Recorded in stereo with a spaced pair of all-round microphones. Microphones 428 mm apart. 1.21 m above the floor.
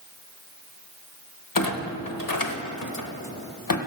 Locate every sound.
1.6 s a clunk: 50° left (ahead or behind), 0.9 m